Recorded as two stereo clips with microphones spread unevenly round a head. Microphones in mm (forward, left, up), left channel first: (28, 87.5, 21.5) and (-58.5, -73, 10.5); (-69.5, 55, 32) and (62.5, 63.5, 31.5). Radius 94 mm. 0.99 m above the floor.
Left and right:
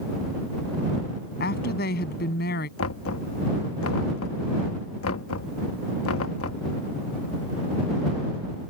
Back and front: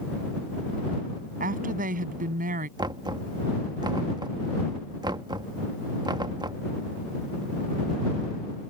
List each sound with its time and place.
1.4 s a woman speaking: 20° left
2.8 s knocking: 60° left